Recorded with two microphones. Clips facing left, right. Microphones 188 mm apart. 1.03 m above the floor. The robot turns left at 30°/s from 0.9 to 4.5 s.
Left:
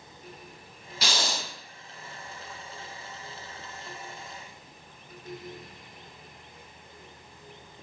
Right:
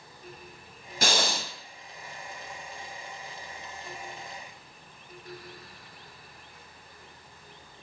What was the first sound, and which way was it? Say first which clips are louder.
Breathing: right 4 dB; 50° right (ahead or behind).